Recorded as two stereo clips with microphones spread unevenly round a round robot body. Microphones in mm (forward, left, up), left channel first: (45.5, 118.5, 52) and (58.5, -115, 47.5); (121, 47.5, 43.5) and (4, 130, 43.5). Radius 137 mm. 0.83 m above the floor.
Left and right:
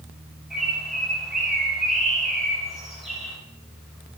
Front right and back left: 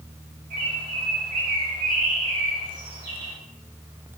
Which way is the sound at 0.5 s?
175° right.